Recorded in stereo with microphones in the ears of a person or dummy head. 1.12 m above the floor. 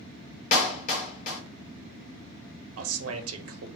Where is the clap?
45° left (ahead or behind), 1.0 m.